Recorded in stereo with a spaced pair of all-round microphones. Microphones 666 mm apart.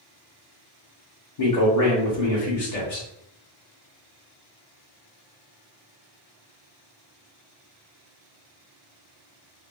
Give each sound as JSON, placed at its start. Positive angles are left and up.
{"t": 1.4, "sound": "a man speaking", "side_deg": 60, "distance_m": 0.9}